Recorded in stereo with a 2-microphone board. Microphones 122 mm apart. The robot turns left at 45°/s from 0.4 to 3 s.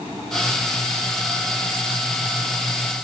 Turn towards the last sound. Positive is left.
No sound to turn to.